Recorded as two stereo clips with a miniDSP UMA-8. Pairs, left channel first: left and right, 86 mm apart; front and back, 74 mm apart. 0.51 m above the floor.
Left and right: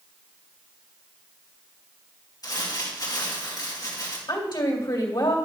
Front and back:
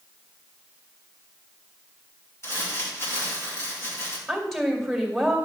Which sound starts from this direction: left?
A woman speaking, at 4.3 s.